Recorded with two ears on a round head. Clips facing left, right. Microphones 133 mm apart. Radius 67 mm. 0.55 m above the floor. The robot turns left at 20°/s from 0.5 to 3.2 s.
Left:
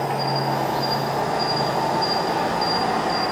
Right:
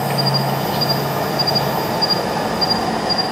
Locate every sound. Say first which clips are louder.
0.0 s an insect: right 3 dB; 80° right, 1.0 m; by 3.3 s 135° right, 1.0 m